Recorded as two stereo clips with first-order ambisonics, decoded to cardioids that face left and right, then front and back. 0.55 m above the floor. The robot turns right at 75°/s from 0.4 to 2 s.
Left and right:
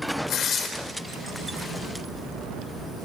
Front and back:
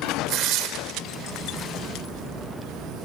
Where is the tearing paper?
140° left, 1.1 m; by 0.7 s 165° left, 1.1 m.